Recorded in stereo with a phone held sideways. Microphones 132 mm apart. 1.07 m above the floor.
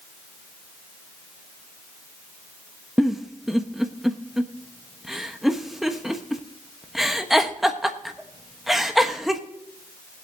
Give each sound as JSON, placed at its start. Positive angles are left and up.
{"t": 3.0, "sound": "a giggle", "side_deg": 0, "distance_m": 1.0}